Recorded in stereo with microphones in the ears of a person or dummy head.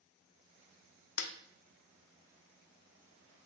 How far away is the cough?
No cough in this recording.